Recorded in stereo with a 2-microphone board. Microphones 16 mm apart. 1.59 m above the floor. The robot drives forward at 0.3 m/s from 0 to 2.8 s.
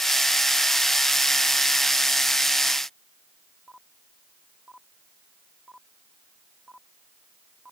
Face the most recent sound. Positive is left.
No sound to turn to.